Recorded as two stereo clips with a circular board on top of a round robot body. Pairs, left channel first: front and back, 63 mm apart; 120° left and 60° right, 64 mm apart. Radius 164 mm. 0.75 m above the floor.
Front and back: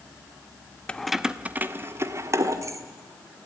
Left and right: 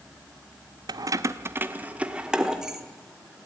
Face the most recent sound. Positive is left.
turn(degrees=-145)